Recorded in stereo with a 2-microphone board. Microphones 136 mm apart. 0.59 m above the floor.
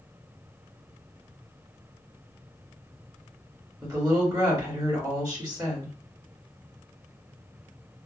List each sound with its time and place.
3.8 s a woman speaking: 30° right (ahead or behind), 2 m